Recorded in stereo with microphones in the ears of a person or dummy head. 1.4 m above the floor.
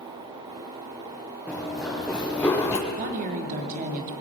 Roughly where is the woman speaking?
Right.